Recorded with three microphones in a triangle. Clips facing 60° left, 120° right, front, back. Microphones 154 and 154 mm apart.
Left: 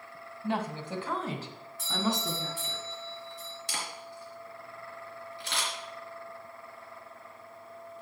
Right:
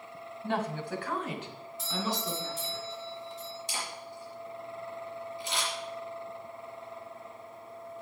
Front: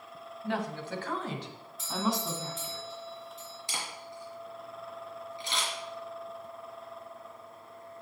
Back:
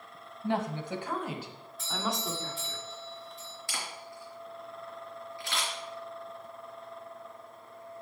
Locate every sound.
0.4 s a woman speaking: 140° left, 1.5 m; by 2.8 s 80° left, 3 m
1.8 s a doorbell: 90° left, 6 m
3.7 s a camera shutter: 70° left, 3.5 m